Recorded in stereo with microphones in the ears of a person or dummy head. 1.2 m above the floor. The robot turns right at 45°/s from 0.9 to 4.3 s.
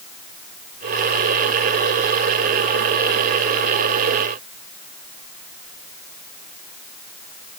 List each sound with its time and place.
Only background noise.